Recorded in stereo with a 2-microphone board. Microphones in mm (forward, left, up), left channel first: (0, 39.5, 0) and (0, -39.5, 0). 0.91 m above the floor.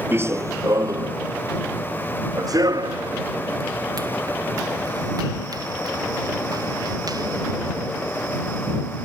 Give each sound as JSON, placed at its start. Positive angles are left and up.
{"t": 0.1, "sound": "running footsteps", "side_deg": -30}